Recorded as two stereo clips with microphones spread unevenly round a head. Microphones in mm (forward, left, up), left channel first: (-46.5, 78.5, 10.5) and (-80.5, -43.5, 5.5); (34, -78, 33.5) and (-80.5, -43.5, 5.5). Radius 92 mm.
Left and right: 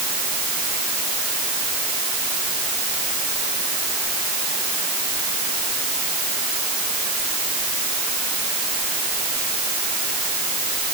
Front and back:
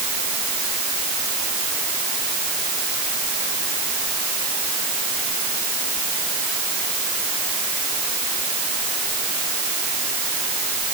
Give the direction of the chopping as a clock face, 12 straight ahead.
I don't hear chopping.